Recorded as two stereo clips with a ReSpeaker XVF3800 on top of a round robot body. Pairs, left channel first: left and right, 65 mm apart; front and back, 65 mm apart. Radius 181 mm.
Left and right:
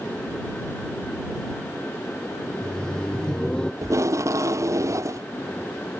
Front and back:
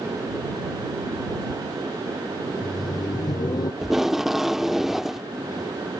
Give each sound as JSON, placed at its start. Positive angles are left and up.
{"t": 2.5, "sound": "laughter", "azimuth_deg": 10}
{"t": 3.8, "sound": "tape being pulled", "azimuth_deg": -95}